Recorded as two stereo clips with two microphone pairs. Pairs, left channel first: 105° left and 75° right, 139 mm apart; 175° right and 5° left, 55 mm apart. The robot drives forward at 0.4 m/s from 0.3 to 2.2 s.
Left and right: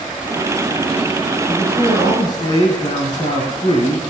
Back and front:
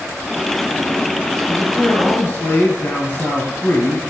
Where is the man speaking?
140° left, 1.9 m; by 4.0 s 150° left, 2 m.